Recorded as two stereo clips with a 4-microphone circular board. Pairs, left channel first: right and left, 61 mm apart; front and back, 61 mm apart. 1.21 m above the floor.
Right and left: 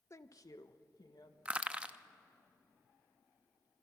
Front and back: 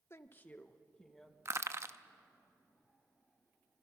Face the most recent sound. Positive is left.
turn(degrees=155)